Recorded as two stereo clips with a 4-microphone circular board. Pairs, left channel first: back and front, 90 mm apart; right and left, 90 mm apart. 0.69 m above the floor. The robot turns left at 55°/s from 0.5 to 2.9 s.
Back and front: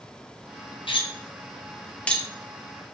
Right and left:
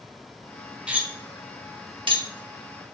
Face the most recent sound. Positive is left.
turn(degrees=55)